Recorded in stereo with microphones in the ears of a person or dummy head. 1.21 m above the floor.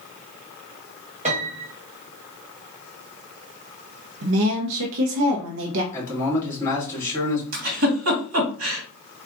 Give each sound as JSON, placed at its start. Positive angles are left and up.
{"t": 1.2, "sound": "a piano", "side_deg": -40, "distance_m": 0.9}
{"t": 4.2, "sound": "a woman speaking", "side_deg": -70, "distance_m": 0.6}
{"t": 5.9, "sound": "a man speaking", "side_deg": 15, "distance_m": 1.9}
{"t": 7.5, "sound": "a giggle", "side_deg": -80, "distance_m": 1.4}